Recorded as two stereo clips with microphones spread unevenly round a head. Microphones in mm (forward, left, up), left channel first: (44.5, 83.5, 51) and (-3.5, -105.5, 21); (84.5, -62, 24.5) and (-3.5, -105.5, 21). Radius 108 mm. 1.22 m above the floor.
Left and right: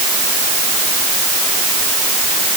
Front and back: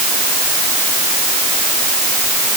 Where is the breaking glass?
No breaking glass in this recording.